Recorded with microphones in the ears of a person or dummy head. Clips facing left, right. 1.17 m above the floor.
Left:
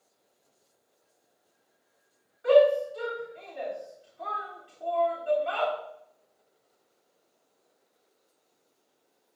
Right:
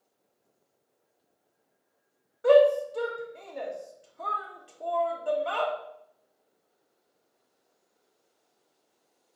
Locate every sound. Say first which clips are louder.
2.4 s a shout: right 1 dB; 45° right (ahead or behind), 1.4 m